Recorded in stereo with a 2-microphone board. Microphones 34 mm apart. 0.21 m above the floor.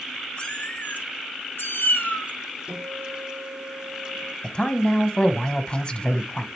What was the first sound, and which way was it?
A cat meowing, 35° left (ahead or behind).